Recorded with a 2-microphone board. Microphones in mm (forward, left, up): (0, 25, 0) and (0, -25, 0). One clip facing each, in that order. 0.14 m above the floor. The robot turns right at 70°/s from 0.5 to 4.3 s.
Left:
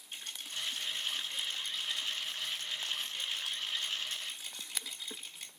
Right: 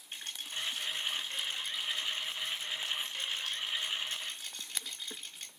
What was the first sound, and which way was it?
A rattle, 35° right (ahead or behind).